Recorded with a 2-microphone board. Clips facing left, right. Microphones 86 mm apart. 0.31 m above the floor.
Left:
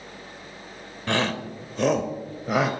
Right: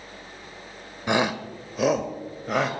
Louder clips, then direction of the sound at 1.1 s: Right 2 dB; 15° right (ahead or behind).